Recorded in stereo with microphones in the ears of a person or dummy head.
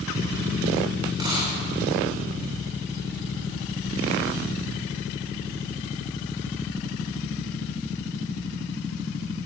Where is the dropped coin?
20° right (ahead or behind), 3 m.